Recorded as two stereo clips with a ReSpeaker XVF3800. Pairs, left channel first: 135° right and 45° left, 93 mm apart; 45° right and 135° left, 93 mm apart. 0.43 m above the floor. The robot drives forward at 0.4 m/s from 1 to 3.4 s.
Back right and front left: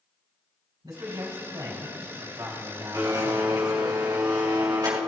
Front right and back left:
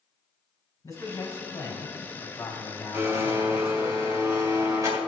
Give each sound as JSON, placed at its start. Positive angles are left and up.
{"t": 0.8, "sound": "a man speaking", "azimuth_deg": 5, "distance_m": 3.5}
{"t": 2.9, "sound": "a blender", "azimuth_deg": 80, "distance_m": 3.0}